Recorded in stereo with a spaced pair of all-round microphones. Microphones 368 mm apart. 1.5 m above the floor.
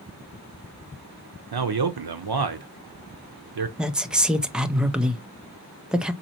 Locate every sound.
1.5 s a man speaking: 85° right, 0.6 m
3.8 s a woman speaking: centre (ahead or behind), 0.5 m